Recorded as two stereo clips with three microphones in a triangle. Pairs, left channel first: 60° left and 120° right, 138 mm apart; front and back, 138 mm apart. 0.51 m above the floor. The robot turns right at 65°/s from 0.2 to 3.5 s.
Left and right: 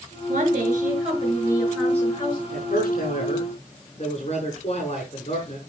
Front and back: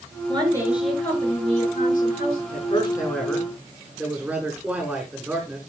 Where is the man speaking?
35° left, 7.5 m; by 5.6 s 100° left, 7.5 m.